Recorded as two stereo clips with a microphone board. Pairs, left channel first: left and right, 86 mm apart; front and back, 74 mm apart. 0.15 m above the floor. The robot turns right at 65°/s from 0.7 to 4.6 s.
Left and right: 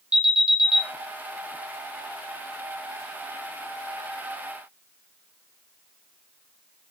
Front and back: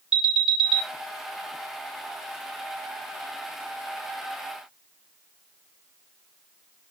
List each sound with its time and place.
0.1 s an alarm: 120° right, 1.1 m; by 0.8 s 110° right, 1.1 m